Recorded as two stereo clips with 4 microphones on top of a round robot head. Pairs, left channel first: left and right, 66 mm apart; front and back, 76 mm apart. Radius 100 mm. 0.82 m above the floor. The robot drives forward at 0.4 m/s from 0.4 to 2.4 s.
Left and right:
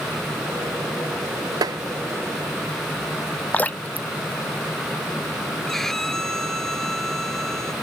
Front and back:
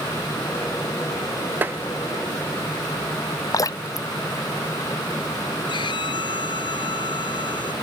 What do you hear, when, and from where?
1.6 s tapping: 115° right; by 1.8 s 120° right
3.5 s dripping: 30° left
5.7 s a violin: 5° left